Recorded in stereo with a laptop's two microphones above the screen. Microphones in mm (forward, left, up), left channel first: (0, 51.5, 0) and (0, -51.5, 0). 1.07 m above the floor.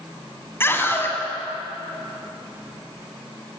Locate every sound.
0.6 s a scream: 20° left (ahead or behind), 7 m